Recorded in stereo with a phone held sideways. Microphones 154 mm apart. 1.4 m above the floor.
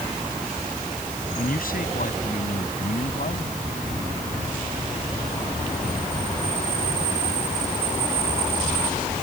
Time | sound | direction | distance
1.4 | a man speaking | 65° left (ahead or behind) | ?